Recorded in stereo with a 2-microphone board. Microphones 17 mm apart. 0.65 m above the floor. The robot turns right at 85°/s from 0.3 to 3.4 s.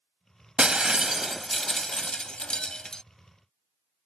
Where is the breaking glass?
70° right; by 3.0 s 140° left.